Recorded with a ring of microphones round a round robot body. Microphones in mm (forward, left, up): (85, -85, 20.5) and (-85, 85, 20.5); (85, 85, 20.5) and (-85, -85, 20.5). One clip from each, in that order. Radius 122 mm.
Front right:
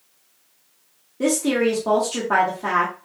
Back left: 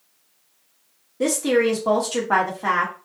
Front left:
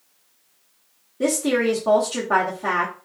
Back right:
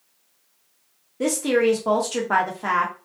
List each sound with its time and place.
1.2 s a woman speaking: 165° right, 0.9 m